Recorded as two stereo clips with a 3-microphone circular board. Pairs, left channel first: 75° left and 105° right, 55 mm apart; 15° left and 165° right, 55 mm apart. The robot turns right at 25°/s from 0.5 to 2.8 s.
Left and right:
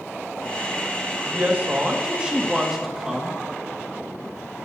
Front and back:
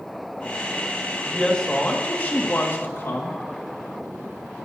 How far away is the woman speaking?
About 2 m.